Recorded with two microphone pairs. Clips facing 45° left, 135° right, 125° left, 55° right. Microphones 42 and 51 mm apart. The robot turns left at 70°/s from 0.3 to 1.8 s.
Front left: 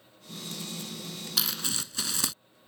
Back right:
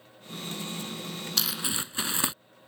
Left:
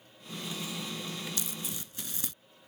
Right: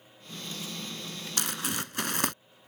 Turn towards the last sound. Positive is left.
turn(degrees=-70)